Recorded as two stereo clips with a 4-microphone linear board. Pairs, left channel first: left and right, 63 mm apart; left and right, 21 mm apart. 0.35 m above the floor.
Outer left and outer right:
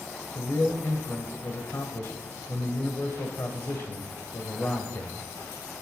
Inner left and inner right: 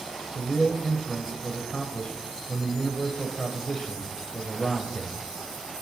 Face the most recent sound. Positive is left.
turn(degrees=45)  # may be behind; listen again after turning